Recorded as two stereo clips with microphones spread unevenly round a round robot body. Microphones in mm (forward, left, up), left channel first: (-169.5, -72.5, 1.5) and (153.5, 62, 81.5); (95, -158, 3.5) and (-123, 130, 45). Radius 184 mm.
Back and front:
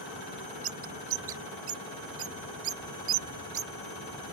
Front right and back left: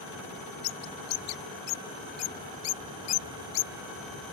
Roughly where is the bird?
Ahead right.